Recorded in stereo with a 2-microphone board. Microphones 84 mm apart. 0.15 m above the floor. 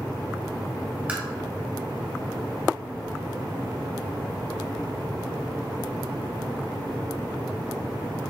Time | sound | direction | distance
1.1 | tapping | 15° right (ahead or behind) | 1.6 m